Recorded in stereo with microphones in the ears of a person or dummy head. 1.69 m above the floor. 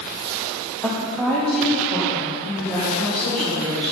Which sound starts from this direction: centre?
A woman speaking, at 0.8 s.